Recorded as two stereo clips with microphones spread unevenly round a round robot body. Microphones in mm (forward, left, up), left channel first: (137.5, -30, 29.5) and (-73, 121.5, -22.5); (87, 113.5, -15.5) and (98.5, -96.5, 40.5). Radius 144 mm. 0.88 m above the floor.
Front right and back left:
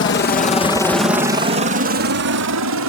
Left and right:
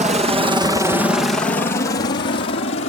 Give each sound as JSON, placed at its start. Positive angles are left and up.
{"t": 0.0, "sound": "a helicopter", "azimuth_deg": -35}